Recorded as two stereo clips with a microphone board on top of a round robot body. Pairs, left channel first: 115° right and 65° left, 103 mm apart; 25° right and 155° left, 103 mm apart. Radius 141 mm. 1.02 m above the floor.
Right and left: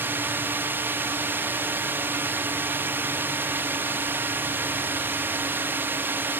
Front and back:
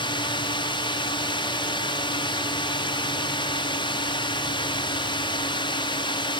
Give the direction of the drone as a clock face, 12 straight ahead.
12 o'clock.